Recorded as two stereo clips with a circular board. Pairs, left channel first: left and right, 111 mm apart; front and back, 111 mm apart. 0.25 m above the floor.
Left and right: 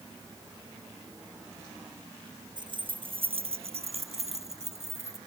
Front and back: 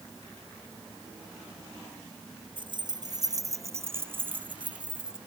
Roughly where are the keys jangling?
Behind right.